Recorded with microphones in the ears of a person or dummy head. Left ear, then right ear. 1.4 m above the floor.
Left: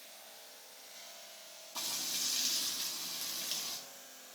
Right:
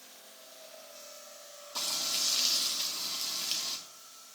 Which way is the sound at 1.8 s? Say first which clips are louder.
Right 6 dB; 10° right (ahead or behind).